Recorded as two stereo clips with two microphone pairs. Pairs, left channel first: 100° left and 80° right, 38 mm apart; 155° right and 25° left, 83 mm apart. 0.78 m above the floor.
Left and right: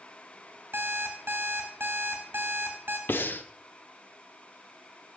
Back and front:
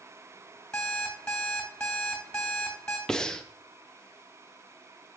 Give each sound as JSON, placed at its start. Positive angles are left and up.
{"t": 0.7, "sound": "an alarm clock", "azimuth_deg": -80, "distance_m": 2.5}
{"t": 3.1, "sound": "breathing", "azimuth_deg": 120, "distance_m": 0.6}